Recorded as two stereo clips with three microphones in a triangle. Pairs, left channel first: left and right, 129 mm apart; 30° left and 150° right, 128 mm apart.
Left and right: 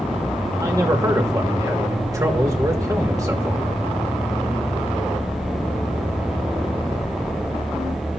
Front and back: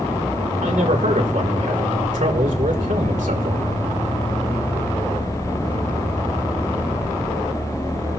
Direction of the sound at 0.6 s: 155° right.